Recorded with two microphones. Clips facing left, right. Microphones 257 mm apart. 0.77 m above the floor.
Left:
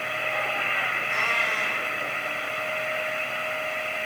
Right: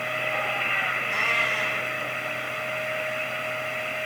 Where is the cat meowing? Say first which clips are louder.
Right 2 dB; 40° right (ahead or behind), 8 m.